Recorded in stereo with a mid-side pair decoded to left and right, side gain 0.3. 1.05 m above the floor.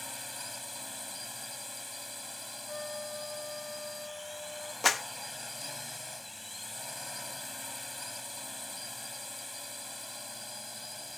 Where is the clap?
40° left.